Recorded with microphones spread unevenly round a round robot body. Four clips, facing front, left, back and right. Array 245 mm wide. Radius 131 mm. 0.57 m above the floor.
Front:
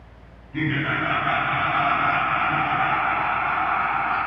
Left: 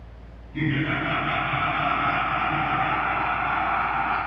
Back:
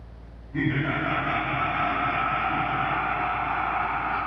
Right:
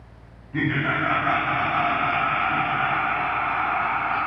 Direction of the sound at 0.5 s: 90° right.